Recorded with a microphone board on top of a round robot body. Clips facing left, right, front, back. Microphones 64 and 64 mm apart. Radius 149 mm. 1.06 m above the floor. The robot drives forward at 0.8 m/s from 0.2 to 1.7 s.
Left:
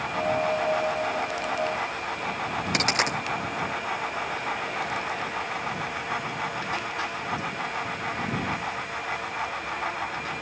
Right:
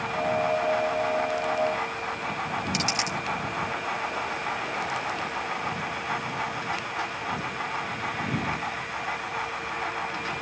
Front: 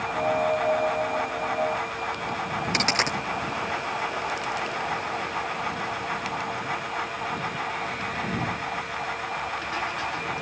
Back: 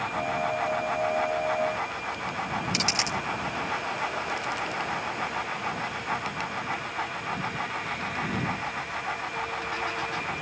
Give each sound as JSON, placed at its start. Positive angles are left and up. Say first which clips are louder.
{"t": 2.7, "sound": "a dropped coin", "louder": "left 3 dB, front 4 dB", "azimuth_deg": 50}